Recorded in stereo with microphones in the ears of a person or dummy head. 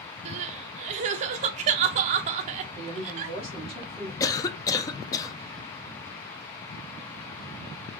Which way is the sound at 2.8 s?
30° right (ahead or behind).